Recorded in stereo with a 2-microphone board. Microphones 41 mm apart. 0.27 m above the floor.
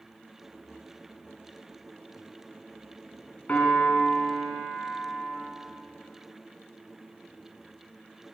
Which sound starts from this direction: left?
A piano, at 3.5 s.